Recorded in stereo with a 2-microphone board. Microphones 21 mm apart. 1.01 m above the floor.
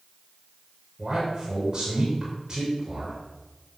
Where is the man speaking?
25° right (ahead or behind), 5 m.